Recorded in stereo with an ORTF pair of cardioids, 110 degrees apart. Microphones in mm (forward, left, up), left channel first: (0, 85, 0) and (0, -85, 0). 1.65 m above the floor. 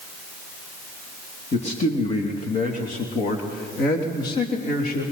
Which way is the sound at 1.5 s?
40° left.